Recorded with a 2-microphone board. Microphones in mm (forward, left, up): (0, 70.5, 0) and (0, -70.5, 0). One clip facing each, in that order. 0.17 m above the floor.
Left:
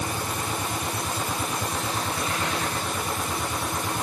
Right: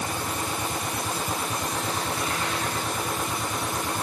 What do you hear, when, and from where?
Only background noise.